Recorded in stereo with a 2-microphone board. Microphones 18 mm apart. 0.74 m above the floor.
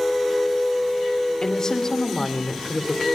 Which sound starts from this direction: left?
A woman speaking, at 1.4 s.